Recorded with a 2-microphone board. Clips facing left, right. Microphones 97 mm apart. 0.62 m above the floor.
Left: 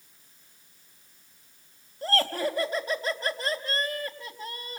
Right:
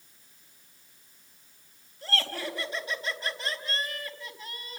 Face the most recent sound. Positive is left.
turn(degrees=45)  # may be behind; listen again after turning